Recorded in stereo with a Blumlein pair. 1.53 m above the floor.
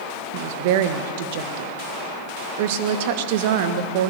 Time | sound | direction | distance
0.3 | a woman speaking | 50° right | 1.8 m